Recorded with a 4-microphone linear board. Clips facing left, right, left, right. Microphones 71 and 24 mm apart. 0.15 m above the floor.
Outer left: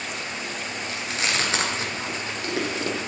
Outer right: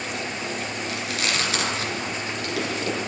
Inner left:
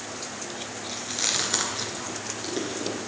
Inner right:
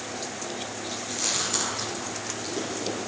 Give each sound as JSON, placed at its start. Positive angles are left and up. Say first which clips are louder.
{"t": 0.9, "sound": "chewing", "louder": "outer left 1 dB, inner left 2 dB", "side_deg": 30, "distance_m": 1.8}